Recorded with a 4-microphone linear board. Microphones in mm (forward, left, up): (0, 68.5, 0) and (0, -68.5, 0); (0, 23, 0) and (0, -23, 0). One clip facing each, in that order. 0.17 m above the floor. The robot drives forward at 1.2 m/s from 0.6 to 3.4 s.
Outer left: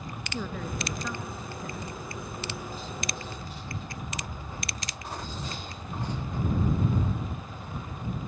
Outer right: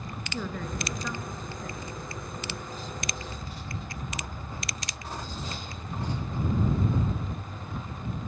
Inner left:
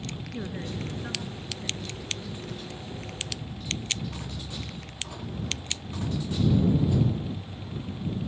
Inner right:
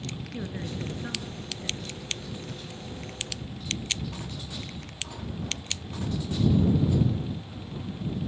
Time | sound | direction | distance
0.3 | a woman speaking | 5° left (ahead or behind) | 2 m